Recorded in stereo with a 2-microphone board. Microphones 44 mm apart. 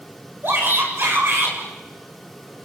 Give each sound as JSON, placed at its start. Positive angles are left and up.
{"t": 0.4, "sound": "a shout", "side_deg": -50, "distance_m": 7.5}